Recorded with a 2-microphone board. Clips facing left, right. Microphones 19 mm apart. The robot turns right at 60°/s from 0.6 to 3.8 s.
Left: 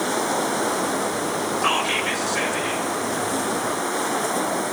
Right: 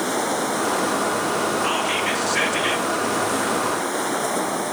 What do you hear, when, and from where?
1.6 s whispering: 165° left, 1.4 m; by 2.9 s 120° right, 1.4 m